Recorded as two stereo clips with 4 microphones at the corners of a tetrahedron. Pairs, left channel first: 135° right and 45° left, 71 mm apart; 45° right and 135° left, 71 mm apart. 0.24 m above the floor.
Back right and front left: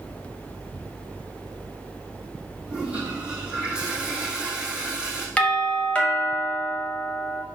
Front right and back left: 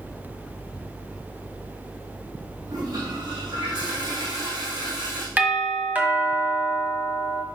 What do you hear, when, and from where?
2.7 s a toilet flushing: 120° left, 4 m
5.4 s a doorbell: 175° left, 1.7 m